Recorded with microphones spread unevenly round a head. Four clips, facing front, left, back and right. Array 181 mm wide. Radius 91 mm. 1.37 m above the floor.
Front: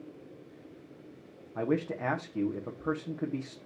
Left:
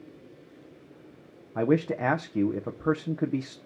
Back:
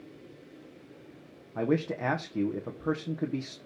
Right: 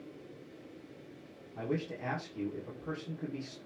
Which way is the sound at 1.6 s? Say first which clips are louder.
Left 12 dB, back 2 dB; 105° left.